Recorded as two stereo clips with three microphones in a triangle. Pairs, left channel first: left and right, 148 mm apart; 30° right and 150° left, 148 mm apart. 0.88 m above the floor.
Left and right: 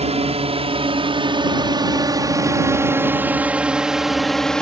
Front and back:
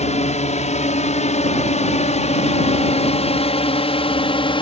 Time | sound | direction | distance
0.0 | a drone | 55° right | ?